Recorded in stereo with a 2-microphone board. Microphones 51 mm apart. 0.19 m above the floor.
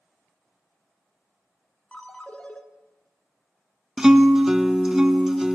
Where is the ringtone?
25° left (ahead or behind), 0.9 m.